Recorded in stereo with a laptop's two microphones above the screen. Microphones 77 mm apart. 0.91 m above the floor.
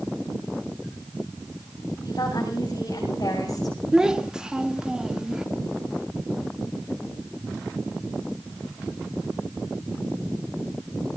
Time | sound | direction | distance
2.0 | a woman speaking | 55° left (ahead or behind) | 6 m
3.9 | a child speaking | 10° right (ahead or behind) | 0.8 m